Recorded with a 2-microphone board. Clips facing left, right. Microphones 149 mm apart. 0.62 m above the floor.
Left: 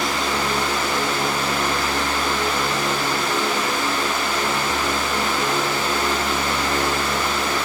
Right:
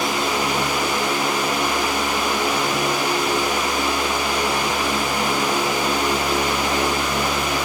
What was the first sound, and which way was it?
Only background noise.